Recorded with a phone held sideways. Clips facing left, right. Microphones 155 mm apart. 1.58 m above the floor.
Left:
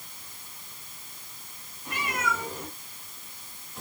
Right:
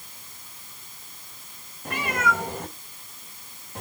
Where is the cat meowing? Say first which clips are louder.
Right 5 dB; 60° right (ahead or behind), 2.5 m; by 3.8 s 70° right (ahead or behind), 3.5 m.